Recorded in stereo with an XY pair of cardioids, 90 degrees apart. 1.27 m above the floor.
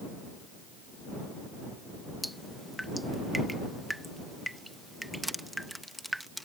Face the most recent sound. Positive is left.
turn(degrees=-5)